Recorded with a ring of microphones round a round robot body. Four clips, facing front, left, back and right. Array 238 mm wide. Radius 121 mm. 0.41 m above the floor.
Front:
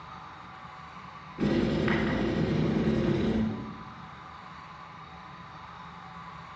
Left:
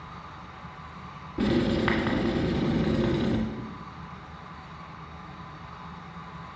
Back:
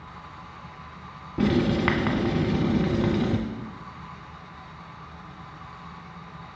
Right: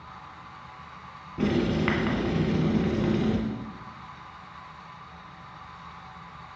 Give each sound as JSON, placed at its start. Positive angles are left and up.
{"t": 1.4, "sound": "writing", "azimuth_deg": 170, "distance_m": 1.7}